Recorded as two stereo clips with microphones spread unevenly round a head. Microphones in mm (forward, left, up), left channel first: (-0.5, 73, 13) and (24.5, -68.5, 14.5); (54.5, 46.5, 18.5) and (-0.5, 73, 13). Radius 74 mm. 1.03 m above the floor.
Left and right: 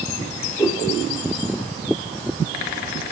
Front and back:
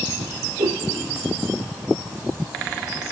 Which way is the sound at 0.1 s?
Straight behind.